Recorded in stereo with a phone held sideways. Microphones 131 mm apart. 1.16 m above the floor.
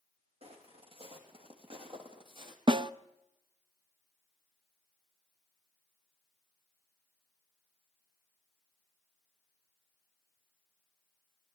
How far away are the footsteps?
About 4 m.